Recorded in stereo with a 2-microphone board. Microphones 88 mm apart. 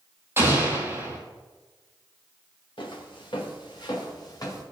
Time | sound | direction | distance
0.4 | an explosion | 25° right (ahead or behind) | 1.7 m
2.8 | footsteps | 70° left (ahead or behind) | 2.5 m